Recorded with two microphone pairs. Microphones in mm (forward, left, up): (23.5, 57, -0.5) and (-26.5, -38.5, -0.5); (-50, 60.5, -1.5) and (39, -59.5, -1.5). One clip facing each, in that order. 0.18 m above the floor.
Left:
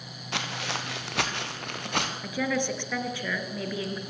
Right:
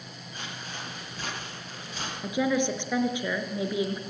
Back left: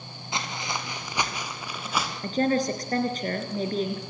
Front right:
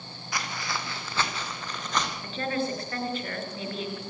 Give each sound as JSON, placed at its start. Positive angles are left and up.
{"t": 0.3, "sound": "footsteps", "azimuth_deg": 60, "distance_m": 3.5}
{"t": 2.2, "sound": "a woman speaking", "azimuth_deg": 170, "distance_m": 3.0}